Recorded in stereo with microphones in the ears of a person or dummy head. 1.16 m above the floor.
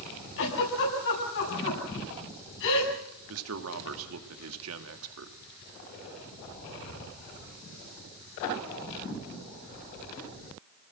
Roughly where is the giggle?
Left.